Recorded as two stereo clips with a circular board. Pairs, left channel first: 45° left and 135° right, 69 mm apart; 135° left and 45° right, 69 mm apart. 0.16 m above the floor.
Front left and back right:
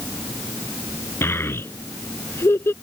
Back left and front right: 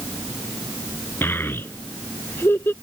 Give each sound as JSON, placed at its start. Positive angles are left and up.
{"t": 1.2, "sound": "a child speaking", "azimuth_deg": 85}